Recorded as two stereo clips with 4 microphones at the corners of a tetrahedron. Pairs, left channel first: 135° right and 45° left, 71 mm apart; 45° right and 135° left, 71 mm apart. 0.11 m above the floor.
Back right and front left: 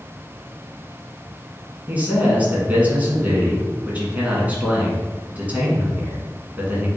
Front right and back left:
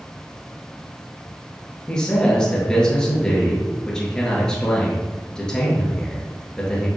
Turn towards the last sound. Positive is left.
turn(degrees=20)